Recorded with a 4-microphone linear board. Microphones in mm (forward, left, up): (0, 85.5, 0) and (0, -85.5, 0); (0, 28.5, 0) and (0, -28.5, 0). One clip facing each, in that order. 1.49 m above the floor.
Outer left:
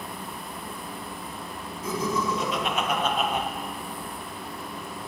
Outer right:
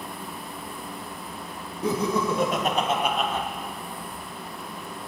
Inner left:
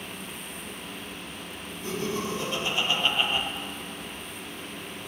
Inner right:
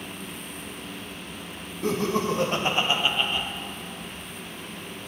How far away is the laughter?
About 2 m.